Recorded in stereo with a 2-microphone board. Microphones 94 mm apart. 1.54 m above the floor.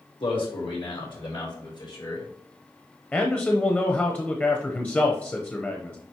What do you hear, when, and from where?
0.2 s a man speaking: 75° left (ahead or behind), 3.5 m; by 2.3 s 50° left (ahead or behind), 3 m
3.1 s a man speaking: 15° left (ahead or behind), 0.8 m